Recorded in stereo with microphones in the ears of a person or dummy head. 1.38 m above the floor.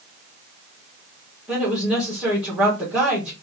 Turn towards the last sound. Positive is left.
turn(degrees=0)  # may be behind; listen again after turning